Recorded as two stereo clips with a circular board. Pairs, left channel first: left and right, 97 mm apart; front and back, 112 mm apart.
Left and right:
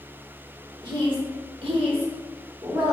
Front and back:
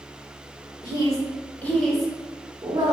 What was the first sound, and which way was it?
A woman speaking, 55° right.